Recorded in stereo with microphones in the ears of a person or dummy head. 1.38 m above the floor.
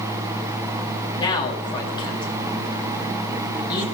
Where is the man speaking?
25° left (ahead or behind), 3 m.